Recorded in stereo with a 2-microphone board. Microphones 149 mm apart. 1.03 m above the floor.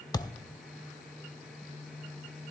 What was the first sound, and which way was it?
A thud, 25° left (ahead or behind).